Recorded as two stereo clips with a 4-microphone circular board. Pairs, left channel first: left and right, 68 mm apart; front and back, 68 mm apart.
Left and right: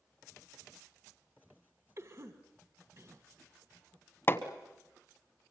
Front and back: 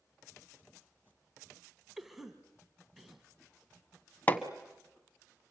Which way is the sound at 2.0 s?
95° right.